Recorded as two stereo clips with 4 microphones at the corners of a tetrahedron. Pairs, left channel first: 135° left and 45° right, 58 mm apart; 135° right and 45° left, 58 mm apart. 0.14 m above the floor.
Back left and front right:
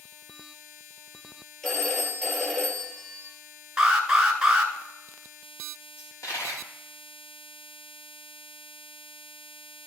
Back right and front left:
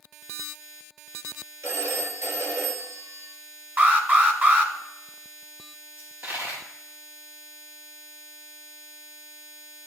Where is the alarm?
20° left, 1.2 m.